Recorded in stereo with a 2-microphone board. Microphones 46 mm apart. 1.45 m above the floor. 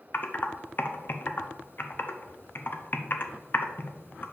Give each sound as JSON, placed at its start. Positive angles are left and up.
{"t": 0.1, "sound": "typing on a keyboard", "side_deg": 45, "distance_m": 0.6}